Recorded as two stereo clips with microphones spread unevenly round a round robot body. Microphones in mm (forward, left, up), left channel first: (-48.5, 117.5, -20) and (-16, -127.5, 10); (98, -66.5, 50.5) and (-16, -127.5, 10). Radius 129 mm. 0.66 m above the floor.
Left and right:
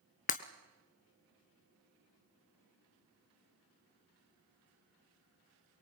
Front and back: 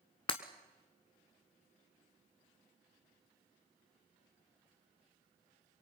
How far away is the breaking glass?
About 0.9 m.